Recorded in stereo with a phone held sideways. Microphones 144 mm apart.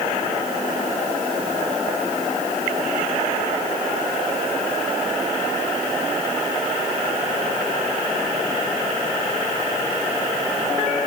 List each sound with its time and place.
Only background noise.